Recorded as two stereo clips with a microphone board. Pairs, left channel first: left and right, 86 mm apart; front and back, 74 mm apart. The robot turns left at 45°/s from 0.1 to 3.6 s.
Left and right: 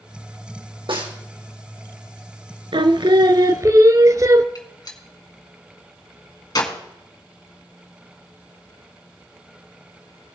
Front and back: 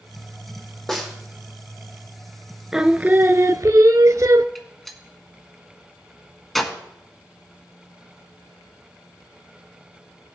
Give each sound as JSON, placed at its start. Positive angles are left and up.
{"t": 0.9, "sound": "a snare drum", "azimuth_deg": -85, "distance_m": 3.0}
{"t": 2.7, "sound": "singing", "azimuth_deg": -100, "distance_m": 0.5}
{"t": 4.5, "sound": "a gunshot", "azimuth_deg": 85, "distance_m": 1.7}